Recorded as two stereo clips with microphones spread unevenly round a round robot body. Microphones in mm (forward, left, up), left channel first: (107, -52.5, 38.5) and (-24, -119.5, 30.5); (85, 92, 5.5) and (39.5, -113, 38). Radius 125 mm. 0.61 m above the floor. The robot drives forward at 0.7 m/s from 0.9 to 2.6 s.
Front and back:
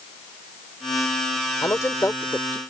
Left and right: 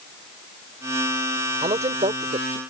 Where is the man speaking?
40° right; by 2.6 s 55° right.